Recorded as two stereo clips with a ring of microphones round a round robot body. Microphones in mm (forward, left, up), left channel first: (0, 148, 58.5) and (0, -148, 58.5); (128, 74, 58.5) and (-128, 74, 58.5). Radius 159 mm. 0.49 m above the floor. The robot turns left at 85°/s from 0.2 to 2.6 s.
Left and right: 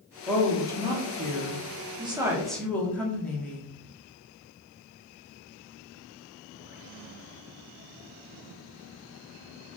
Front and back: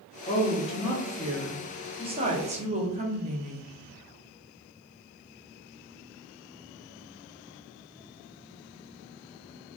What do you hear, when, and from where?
0.3 s a woman speaking: 10° left, 0.8 m; by 3.7 s 170° left, 0.8 m